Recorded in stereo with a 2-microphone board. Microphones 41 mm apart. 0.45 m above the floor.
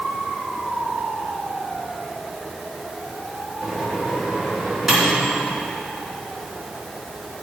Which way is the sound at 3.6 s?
10° right (ahead or behind).